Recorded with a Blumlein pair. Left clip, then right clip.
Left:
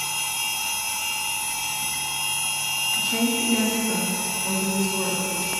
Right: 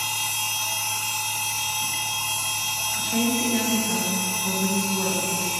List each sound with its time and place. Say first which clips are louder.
0.0 s a machine running: even; 15° right, 1.1 m
3.0 s a woman speaking: left 1 dB; 20° right, 5.5 m